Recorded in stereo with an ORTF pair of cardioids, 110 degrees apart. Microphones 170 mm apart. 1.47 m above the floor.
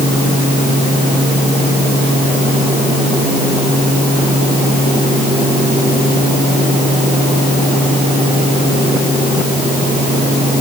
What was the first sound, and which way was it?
Only background noise.